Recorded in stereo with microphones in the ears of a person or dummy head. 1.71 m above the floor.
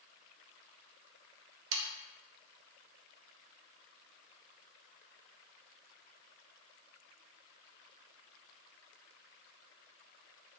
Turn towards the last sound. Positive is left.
turn(degrees=-75)  # may be behind; listen again after turning